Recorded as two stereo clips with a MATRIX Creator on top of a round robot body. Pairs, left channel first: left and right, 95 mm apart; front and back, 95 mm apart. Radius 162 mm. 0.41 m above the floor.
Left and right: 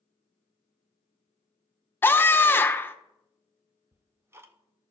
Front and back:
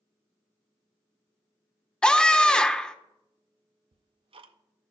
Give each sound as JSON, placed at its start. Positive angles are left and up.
{"t": 2.0, "sound": "a scream", "azimuth_deg": 70, "distance_m": 1.0}
{"t": 3.9, "sound": "ticking", "azimuth_deg": -155, "distance_m": 0.5}